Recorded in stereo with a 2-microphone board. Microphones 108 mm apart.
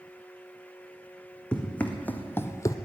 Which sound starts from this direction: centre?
Running footsteps, at 1.5 s.